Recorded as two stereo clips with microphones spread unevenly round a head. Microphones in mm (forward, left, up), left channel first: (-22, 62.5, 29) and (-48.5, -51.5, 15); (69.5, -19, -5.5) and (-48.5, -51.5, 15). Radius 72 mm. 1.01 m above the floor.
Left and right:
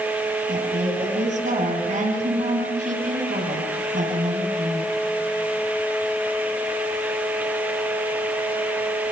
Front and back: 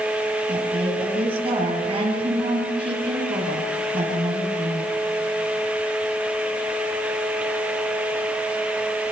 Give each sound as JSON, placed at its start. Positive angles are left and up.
{"t": 0.5, "sound": "a woman speaking", "azimuth_deg": -120, "distance_m": 8.5}